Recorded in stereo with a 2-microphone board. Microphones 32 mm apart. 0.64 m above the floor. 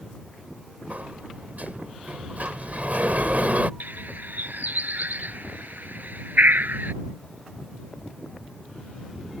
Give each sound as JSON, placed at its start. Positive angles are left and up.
{"t": 0.9, "sound": "a sliding door", "side_deg": -55}
{"t": 3.8, "sound": "a bird", "side_deg": -65}